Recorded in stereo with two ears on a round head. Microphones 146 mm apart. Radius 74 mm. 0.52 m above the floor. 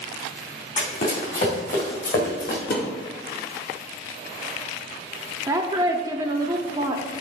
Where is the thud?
70° left (ahead or behind), 1.8 m.